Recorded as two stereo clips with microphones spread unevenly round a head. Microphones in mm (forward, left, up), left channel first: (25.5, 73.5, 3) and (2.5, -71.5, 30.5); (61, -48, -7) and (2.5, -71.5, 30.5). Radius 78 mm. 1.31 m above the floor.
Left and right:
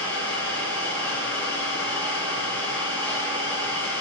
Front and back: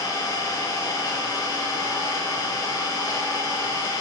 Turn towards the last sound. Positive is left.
turn(degrees=0)